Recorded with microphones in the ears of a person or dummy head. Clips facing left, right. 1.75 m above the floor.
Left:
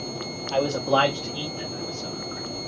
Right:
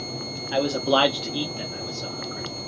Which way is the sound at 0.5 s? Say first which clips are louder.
Right 1 dB; 15° right (ahead or behind).